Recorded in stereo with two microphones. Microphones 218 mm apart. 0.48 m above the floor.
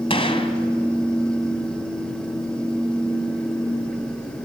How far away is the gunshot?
About 1.8 m.